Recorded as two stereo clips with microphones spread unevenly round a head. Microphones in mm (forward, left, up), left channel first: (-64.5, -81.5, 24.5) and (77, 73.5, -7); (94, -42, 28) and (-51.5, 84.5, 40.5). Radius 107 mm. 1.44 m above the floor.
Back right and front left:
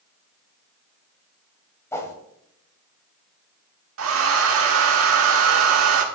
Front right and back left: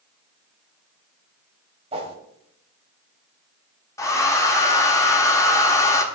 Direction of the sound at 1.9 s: 175° left.